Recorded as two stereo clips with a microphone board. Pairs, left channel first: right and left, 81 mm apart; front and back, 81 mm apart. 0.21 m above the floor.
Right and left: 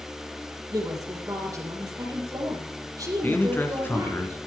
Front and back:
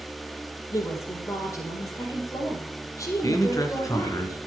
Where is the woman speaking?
50° left, 4.5 m.